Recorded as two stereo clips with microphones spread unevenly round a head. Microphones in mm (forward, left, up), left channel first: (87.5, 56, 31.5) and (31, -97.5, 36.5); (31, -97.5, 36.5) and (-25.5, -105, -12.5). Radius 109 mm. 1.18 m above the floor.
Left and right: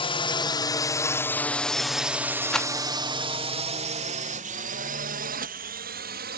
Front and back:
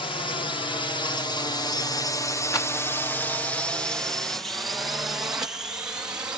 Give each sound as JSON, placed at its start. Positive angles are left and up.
{"t": 0.0, "sound": "a drone", "azimuth_deg": 30}
{"t": 2.5, "sound": "a rattle", "azimuth_deg": -15}